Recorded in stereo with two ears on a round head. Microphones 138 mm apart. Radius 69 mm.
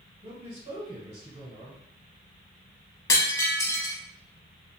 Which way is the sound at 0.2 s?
40° right (ahead or behind).